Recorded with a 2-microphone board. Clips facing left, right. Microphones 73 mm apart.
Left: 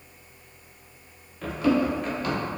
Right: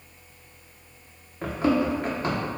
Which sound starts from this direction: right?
Running footsteps, at 1.4 s.